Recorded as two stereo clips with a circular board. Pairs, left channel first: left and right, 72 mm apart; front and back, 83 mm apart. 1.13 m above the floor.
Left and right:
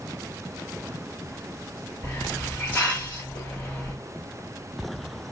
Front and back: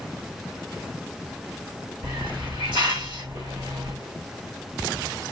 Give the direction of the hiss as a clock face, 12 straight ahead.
7 o'clock.